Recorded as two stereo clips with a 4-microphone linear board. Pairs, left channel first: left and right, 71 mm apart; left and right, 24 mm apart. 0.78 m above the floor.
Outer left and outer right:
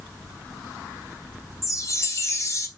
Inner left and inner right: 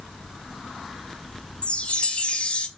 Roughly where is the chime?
Left.